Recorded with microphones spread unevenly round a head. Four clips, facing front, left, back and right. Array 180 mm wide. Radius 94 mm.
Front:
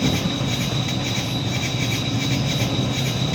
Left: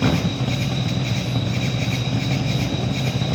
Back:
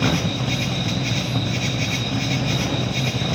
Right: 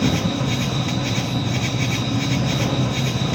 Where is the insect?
100° right, 4 m.